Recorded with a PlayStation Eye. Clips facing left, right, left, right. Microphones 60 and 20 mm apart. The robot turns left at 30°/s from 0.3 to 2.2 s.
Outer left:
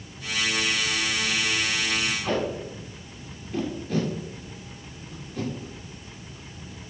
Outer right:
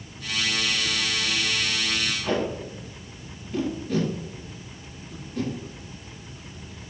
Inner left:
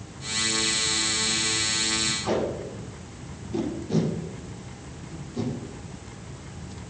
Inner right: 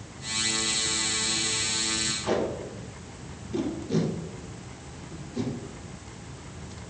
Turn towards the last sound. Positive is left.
turn(degrees=-5)  # may be behind; listen again after turning